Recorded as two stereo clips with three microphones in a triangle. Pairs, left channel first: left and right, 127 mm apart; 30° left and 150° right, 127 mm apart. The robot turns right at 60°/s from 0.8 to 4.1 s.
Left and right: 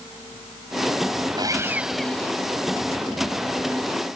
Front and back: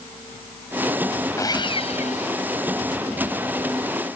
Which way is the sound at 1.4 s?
35° right.